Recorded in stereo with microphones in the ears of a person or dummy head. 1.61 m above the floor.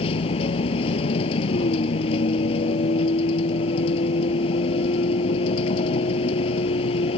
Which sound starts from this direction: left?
A vehicle, at 0.0 s.